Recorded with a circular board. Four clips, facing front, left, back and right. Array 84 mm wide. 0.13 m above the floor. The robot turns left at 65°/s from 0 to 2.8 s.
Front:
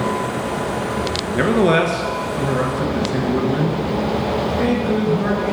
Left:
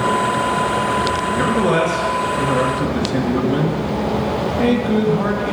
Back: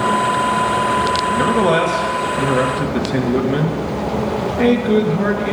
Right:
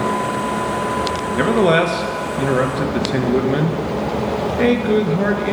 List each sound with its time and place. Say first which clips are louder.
1.3 s a man speaking: right 4 dB, front 2 dB; 30° right, 1.6 m; by 5.5 s 125° right, 1.6 m